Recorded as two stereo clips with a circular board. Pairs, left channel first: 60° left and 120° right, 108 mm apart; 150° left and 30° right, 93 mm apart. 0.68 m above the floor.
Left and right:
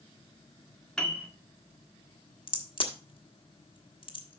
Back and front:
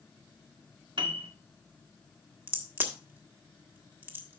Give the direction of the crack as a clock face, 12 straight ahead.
11 o'clock.